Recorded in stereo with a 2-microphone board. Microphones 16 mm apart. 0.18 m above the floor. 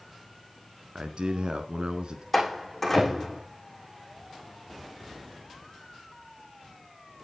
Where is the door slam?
10° left (ahead or behind), 7.5 m.